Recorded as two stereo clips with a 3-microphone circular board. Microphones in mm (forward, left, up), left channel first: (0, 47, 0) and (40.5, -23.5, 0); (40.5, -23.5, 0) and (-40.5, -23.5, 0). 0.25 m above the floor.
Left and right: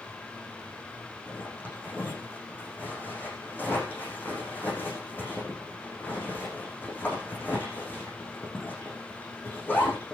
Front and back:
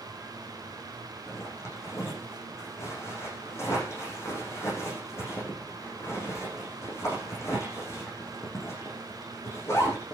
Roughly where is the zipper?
Ahead left.